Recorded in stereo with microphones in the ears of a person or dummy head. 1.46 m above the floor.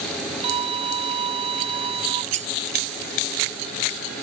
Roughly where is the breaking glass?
Right.